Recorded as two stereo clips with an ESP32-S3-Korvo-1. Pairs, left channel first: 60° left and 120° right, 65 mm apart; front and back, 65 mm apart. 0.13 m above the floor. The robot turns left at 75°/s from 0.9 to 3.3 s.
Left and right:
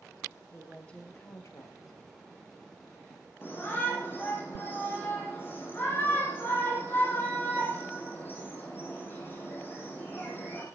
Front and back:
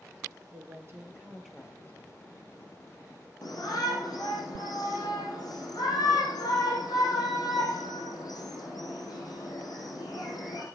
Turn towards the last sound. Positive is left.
turn(degrees=5)